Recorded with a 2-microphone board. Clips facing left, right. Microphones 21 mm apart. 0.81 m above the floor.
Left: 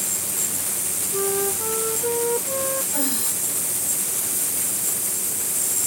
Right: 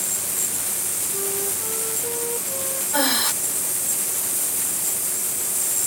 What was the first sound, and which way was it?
A flute, 35° left (ahead or behind).